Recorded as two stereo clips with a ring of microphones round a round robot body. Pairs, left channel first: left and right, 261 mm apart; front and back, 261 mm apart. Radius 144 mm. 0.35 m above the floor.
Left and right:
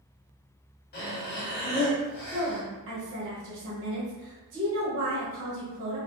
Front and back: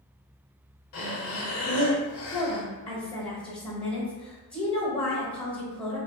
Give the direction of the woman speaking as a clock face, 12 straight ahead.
3 o'clock.